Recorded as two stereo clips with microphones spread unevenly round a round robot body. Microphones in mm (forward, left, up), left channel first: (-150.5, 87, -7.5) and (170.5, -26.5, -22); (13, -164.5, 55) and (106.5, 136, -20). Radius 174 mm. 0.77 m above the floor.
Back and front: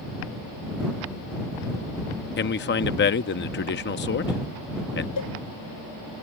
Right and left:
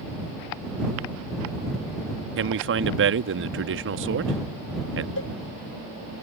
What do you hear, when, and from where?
2.4 s a man speaking: 105° left
5.2 s a cowbell: 160° right